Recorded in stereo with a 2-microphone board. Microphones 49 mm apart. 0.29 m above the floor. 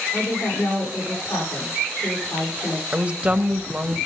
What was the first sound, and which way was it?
A woman speaking, 75° left (ahead or behind).